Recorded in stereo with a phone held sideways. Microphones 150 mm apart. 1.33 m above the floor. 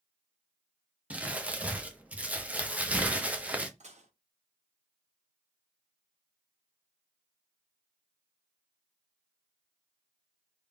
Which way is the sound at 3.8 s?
55° right (ahead or behind).